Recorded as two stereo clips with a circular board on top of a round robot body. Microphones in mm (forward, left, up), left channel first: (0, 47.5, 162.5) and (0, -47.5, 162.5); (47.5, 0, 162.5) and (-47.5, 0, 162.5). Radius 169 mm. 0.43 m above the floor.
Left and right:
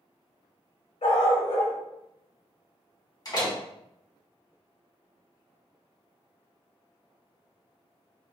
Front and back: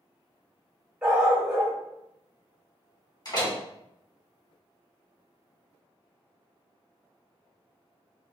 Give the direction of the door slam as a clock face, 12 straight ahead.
10 o'clock.